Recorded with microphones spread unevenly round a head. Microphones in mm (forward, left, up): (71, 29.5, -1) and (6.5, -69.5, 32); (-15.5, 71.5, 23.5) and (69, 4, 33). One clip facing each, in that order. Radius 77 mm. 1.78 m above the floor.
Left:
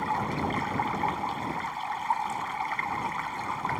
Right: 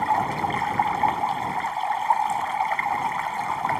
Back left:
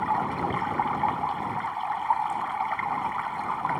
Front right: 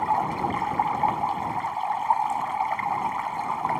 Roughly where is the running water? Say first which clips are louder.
Right 6 dB, front right 2 dB; right.